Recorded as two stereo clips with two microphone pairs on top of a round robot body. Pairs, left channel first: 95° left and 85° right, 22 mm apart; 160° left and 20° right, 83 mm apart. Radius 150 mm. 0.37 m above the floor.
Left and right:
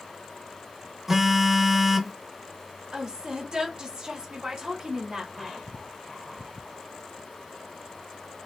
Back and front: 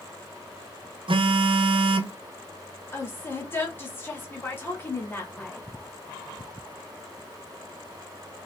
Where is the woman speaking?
135° right, 1.6 m.